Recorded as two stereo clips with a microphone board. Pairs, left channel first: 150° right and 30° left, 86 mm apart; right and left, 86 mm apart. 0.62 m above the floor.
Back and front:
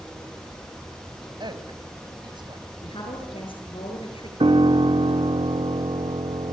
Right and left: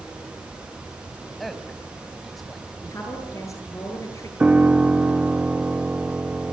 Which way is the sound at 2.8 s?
145° right.